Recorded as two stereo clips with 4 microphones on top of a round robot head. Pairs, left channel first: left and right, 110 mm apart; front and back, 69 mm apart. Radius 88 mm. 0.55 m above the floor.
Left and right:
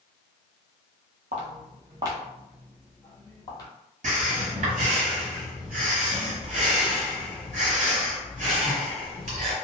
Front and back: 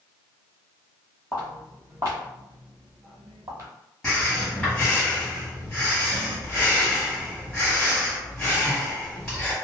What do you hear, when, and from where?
1.3 s footsteps: 95° right, 0.8 m; by 3.7 s 140° left, 0.9 m
4.0 s breathing: 85° right, 1.4 m